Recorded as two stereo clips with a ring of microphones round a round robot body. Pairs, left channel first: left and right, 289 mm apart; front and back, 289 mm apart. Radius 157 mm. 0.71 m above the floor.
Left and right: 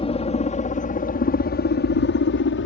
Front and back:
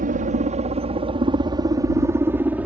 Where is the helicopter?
145° left; by 2.7 s 95° left.